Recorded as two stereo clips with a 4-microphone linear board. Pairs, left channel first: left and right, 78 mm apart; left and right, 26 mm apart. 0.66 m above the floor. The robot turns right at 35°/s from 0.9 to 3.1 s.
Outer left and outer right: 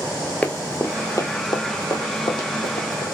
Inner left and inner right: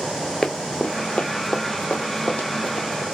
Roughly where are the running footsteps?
Centre.